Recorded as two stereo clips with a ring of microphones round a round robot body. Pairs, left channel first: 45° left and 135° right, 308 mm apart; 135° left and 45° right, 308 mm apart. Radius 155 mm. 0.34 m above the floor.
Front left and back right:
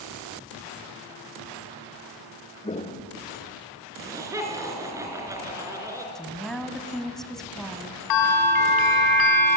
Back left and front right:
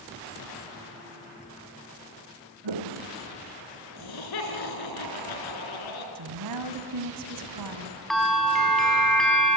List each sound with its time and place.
2.6 s footsteps: 30° right, 2.5 m
4.0 s laughter: 145° left, 4.5 m
6.2 s a woman speaking: 45° right, 2.5 m
8.1 s a bell: 45° left, 3 m